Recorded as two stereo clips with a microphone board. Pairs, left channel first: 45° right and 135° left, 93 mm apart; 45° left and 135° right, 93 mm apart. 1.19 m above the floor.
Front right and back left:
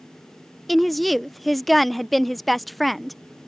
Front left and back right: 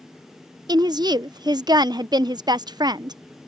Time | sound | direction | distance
0.7 | a woman speaking | 135° right | ?